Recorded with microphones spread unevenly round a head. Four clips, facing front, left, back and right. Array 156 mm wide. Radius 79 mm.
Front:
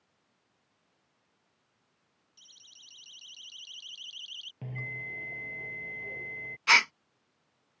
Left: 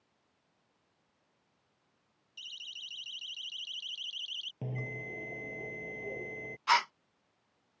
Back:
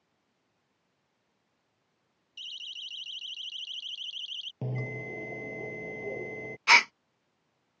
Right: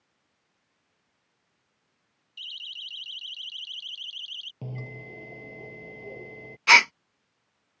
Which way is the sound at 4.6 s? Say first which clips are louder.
Right 1 dB, back 6 dB; 175° left.